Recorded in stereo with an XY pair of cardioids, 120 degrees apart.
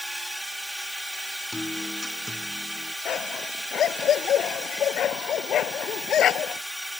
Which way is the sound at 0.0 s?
5° right.